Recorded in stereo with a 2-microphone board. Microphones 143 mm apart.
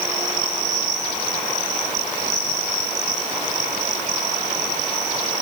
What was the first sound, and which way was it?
Only background noise.